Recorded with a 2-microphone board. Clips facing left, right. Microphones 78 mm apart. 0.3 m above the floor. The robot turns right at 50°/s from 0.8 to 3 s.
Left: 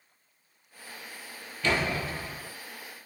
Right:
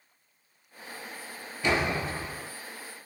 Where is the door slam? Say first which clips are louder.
Right 1 dB; 15° right (ahead or behind), 0.6 m; by 2.5 s 25° right (ahead or behind), 0.6 m.